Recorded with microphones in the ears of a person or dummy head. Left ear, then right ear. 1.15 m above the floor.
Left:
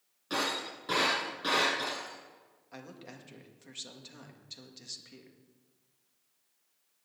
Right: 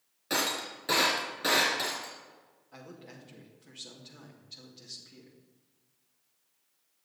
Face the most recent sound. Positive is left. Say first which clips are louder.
# left 1 dB
turn(degrees=75)  # may be behind; listen again after turning